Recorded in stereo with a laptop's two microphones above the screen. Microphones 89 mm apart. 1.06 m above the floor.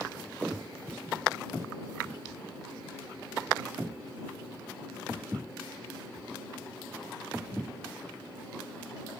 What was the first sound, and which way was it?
A thud, 15° right (ahead or behind).